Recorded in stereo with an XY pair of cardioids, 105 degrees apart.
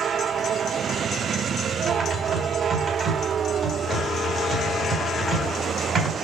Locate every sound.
1.9 s typing on a keyboard: 40° right, 3.5 m